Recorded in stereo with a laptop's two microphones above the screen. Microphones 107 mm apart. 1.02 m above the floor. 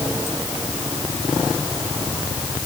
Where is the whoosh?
I don't hear a whoosh.